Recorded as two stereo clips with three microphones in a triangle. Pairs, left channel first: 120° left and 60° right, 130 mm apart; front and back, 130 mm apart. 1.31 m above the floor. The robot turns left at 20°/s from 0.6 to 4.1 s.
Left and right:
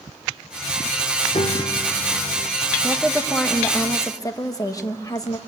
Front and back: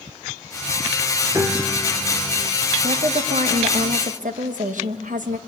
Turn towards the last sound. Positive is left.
turn(degrees=-175)